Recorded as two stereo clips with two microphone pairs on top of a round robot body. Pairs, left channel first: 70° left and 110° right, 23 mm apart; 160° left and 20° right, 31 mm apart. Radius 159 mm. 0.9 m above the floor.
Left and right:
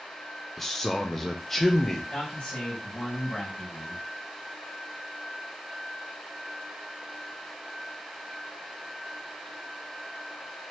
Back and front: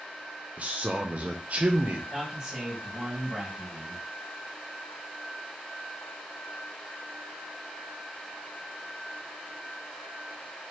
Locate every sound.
0.6 s a man speaking: 5° right, 0.8 m
2.1 s a man speaking: 50° left, 1.8 m